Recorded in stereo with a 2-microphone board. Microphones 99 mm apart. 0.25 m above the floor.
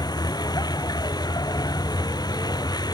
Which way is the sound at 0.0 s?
45° left (ahead or behind).